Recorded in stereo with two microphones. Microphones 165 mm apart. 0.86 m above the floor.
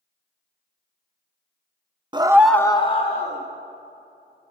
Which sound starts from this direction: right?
A scream, at 2.1 s.